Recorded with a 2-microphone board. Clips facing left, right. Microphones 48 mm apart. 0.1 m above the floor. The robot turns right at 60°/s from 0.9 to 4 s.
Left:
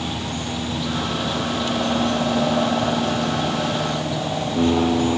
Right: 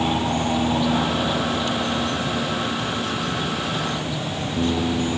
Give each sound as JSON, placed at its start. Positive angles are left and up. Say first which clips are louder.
{"t": 0.0, "sound": "an aircraft", "louder": "right 6 dB", "azimuth_deg": -35}